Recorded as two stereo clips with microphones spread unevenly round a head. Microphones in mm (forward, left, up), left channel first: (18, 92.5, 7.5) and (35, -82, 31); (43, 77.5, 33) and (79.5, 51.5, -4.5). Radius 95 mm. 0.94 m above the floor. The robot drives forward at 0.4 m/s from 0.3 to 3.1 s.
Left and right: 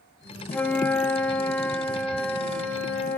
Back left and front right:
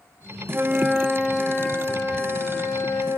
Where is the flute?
175° right, 0.6 m; by 3.2 s straight behind, 1.4 m.